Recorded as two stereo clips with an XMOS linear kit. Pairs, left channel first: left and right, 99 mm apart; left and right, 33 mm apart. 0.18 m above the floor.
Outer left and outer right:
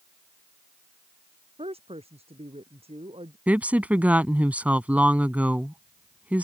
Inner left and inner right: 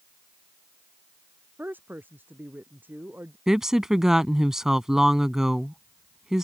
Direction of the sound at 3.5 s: 15° right (ahead or behind).